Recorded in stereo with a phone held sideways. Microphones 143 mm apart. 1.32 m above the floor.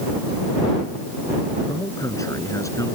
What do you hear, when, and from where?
1.7 s a man speaking: 20° left (ahead or behind)